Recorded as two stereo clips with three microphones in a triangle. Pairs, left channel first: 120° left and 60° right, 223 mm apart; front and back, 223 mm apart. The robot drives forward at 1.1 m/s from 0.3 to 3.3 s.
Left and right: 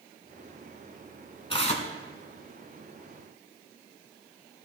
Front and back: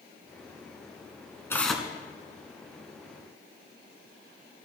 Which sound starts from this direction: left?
Tearing paper, at 1.5 s.